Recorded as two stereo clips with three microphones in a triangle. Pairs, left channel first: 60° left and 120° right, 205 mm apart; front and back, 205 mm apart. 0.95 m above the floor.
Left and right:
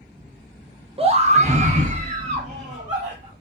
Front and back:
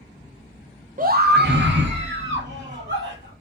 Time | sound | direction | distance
1.0 | a scream | 165° right | 0.6 m